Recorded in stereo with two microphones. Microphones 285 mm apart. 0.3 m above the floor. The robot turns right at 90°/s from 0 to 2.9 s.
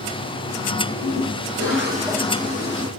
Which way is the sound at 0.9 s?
125° right.